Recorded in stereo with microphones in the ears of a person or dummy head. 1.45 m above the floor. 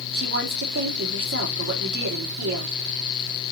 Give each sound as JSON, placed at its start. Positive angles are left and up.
{"t": 0.1, "sound": "a woman speaking", "side_deg": -65, "distance_m": 3.0}